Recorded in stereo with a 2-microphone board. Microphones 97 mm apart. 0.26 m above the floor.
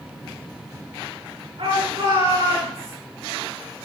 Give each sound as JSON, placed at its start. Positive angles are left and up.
{"t": 1.6, "sound": "a shout", "side_deg": -70, "distance_m": 5.0}